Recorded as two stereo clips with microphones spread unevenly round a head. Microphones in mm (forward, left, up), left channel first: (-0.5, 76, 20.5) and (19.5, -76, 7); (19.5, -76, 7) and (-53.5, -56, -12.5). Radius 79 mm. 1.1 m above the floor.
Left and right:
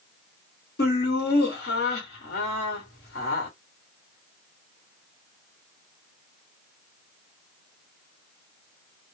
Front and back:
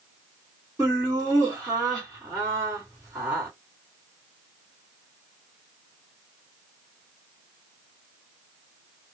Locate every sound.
0.8 s laughter: 90° left, 1.5 m